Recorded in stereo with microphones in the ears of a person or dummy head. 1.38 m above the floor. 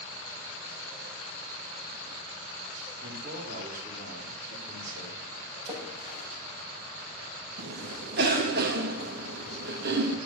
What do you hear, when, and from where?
3.0 s a man speaking: 55° right (ahead or behind), 3.5 m; by 5.2 s 50° right (ahead or behind), 4.5 m
5.7 s a splash: 35° right (ahead or behind), 6 m
7.6 s a cough: 65° right (ahead or behind), 2.5 m